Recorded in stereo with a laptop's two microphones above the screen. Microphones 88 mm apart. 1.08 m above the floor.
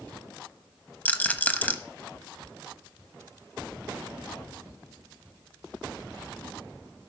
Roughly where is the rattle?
Centre.